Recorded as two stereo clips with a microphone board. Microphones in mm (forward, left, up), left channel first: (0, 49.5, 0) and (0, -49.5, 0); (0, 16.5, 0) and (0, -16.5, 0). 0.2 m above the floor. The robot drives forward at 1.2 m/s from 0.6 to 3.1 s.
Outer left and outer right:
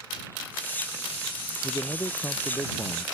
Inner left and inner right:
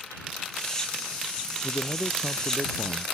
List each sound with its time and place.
1.6 s a man speaking: 25° left (ahead or behind); by 3.1 s 30° left (ahead or behind)